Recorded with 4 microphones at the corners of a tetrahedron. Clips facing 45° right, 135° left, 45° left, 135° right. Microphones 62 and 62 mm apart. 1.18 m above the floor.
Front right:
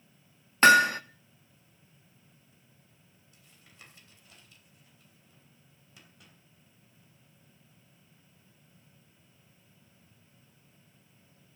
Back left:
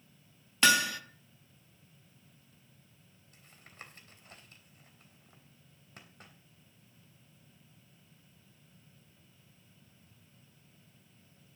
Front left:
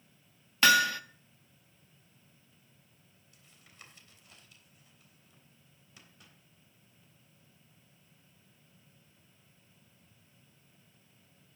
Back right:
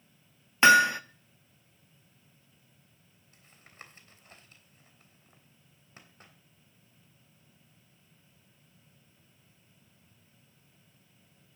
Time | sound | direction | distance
0.6 | hammering | 80° right | 0.8 m
3.3 | tapping | 175° left | 3 m